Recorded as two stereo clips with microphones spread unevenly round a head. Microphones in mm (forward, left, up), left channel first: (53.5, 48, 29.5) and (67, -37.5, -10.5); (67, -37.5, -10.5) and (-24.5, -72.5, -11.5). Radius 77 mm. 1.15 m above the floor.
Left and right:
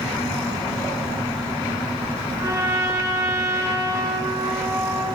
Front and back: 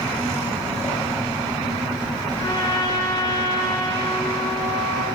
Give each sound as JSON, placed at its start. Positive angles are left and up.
{"t": 2.4, "sound": "a trumpet", "azimuth_deg": -25, "distance_m": 9.0}